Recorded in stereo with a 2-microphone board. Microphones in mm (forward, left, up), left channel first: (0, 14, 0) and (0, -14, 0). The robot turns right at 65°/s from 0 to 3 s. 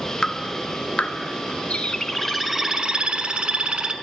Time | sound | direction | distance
0.2 | dripping | 25° left (ahead or behind) | 0.5 m
1.7 | a bird | 135° left | 0.6 m